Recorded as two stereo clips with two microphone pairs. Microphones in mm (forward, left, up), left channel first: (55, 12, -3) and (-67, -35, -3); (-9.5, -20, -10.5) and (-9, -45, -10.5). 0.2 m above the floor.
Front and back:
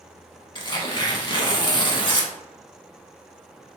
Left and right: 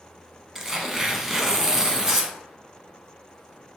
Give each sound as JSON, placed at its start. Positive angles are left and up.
{"t": 0.6, "sound": "tearing paper", "azimuth_deg": -25, "distance_m": 0.6}